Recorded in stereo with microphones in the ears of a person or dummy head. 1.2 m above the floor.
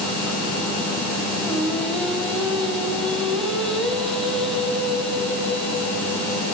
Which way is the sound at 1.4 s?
Centre (ahead or behind).